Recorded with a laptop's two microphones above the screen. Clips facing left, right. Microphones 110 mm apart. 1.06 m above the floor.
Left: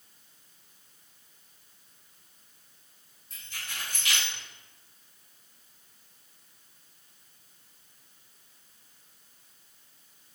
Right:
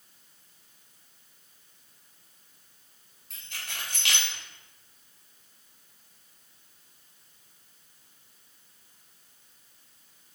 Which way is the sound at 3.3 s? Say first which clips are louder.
Right 1 dB; 80° right.